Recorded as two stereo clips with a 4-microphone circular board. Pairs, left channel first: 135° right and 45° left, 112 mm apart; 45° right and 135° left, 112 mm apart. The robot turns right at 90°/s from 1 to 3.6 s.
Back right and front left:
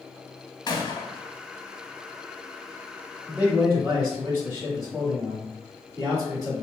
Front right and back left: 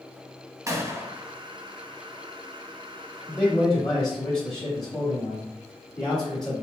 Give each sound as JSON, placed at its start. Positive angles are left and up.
{"t": 0.7, "sound": "a gunshot", "azimuth_deg": -175, "distance_m": 0.5}
{"t": 3.3, "sound": "a man speaking", "azimuth_deg": -5, "distance_m": 1.0}